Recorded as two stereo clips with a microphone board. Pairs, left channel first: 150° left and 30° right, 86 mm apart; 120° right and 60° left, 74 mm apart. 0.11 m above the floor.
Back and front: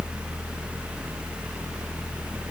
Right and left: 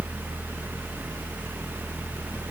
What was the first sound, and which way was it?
Only background noise.